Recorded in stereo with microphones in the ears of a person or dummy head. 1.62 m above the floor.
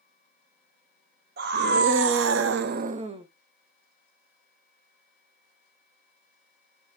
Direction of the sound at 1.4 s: 60° right (ahead or behind).